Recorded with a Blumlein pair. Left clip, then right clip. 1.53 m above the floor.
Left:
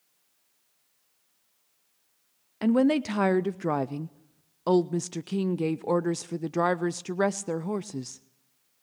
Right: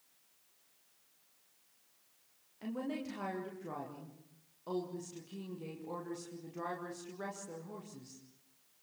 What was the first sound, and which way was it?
A woman speaking, 50° left.